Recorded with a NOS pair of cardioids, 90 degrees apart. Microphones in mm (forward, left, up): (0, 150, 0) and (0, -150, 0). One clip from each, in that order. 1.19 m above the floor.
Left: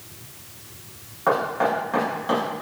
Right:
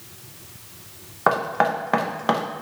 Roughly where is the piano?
No piano in this recording.